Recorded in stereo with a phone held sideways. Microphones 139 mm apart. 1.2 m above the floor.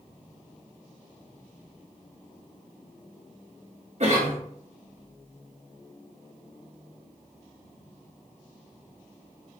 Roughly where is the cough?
Right.